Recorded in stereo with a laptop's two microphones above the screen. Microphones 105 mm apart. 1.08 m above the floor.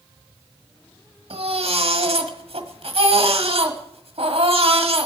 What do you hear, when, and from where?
1.3 s a baby crying: 70° right (ahead or behind), 1.4 m